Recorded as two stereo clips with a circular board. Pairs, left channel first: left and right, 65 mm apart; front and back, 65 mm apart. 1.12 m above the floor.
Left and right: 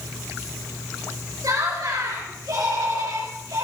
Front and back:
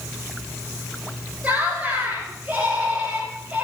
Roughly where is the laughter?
Behind right.